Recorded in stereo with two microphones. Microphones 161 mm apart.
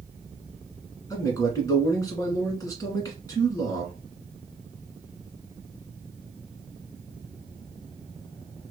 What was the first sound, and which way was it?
A man speaking, 25° left (ahead or behind).